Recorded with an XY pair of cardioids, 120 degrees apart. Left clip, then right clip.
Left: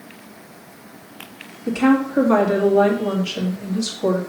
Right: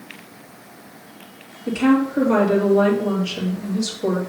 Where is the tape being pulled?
I don't hear tape being pulled.